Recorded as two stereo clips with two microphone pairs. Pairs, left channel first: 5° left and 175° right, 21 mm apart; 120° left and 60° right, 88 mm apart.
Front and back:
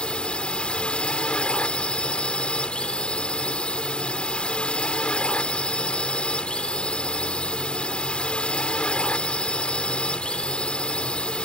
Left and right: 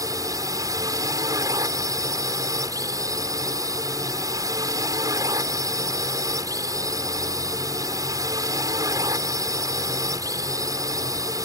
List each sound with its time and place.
0.0 s a drone: 20° right